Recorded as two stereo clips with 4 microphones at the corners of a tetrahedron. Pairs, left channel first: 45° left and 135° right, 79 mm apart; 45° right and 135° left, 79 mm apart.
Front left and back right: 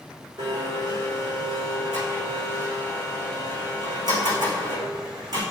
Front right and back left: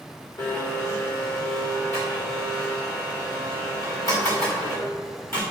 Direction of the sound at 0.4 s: 100° right.